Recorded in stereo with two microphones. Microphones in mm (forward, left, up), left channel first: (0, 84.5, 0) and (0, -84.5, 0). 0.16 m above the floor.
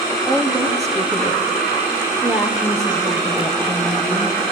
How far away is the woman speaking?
About 4.5 m.